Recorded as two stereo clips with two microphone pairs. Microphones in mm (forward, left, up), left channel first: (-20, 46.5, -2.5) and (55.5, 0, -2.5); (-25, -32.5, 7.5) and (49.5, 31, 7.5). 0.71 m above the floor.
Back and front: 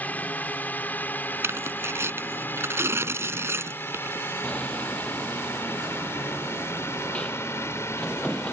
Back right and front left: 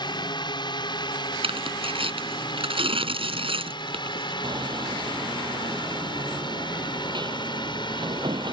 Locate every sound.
0.0 s a drone: 145° right; by 8.5 s 160° right
1.4 s tearing paper: 30° left
4.4 s hammering: 70° left